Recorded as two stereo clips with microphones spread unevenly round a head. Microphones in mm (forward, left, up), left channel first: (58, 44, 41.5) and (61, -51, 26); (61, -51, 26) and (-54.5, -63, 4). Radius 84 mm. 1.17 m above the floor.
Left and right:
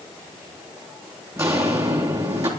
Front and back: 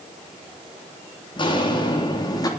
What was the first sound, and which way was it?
Footsteps, 30° right.